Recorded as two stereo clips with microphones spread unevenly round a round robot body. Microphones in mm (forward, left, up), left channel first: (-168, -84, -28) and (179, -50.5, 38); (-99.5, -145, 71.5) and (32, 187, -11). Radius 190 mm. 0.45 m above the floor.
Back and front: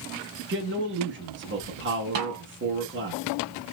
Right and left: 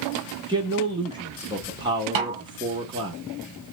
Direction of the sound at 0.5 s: 50° left.